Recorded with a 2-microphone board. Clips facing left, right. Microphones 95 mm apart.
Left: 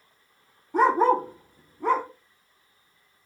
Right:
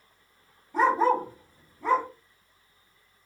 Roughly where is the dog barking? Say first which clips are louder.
Left 2 dB; left.